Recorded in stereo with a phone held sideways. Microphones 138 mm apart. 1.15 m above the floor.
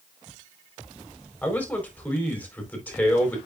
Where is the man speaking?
10° left (ahead or behind), 4.5 m.